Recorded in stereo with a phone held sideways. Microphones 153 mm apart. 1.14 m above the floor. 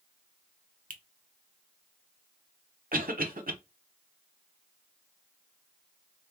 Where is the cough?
70° right (ahead or behind), 1.0 m.